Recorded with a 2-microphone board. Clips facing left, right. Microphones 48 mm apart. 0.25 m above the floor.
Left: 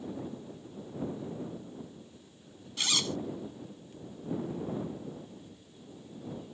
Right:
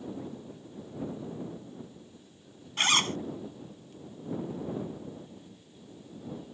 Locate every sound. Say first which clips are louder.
2.8 s a zipper: right 6 dB; 45° right (ahead or behind)